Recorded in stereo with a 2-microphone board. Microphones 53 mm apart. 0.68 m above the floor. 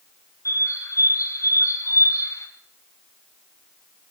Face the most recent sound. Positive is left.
turn(degrees=85)